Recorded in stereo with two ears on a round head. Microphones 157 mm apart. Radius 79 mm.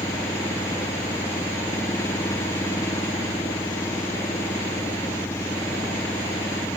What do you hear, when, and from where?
0.0 s an engine running: 15° left (ahead or behind)